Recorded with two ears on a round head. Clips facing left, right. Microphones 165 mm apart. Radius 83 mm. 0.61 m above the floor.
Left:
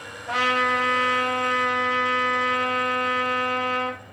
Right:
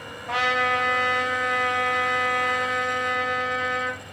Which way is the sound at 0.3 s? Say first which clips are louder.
Even; centre (ahead or behind).